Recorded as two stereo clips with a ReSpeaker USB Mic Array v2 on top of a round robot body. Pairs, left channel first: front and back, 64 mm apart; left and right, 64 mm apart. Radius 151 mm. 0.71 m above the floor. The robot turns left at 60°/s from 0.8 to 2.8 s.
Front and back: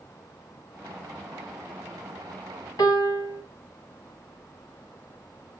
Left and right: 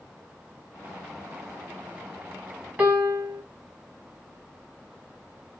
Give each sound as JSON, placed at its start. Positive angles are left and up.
{"t": 2.8, "sound": "a piano", "azimuth_deg": -20, "distance_m": 1.9}